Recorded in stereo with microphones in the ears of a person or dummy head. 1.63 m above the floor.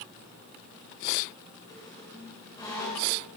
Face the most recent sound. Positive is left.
turn(degrees=25)  # may be behind; listen again after turning